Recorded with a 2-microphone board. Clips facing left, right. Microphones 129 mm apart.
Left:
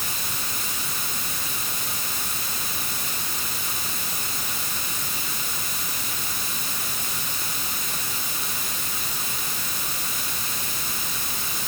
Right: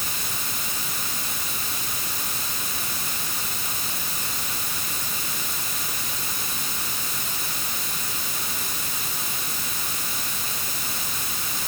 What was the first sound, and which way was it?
Only background noise.